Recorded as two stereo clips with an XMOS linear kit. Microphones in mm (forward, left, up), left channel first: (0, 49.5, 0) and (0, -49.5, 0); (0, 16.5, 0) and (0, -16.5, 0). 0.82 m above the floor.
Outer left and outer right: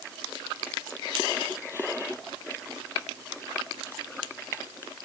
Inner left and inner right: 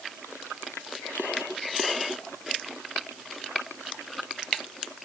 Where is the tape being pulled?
No tape being pulled in this recording.